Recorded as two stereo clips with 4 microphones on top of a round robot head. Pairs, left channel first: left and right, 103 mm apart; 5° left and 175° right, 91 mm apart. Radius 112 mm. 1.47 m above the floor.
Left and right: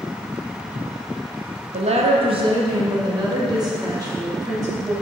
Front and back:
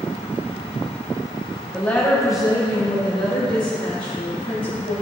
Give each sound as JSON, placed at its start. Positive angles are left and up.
{"t": 1.7, "sound": "a woman speaking", "azimuth_deg": -80, "distance_m": 1.3}